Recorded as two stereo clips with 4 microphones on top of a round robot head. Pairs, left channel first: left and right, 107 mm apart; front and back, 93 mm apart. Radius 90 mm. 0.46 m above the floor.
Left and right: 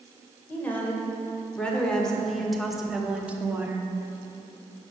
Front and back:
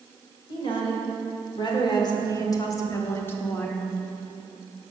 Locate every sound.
0.5 s a woman speaking: 20° left, 2.5 m; by 3.9 s 65° right, 1.2 m